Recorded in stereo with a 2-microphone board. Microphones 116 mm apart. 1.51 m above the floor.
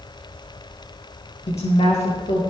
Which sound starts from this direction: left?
A woman speaking, at 1.5 s.